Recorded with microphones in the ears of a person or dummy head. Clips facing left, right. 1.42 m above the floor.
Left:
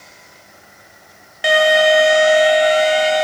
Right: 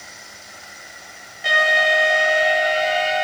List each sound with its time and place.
1.4 s an alarm: 70° left (ahead or behind), 3 m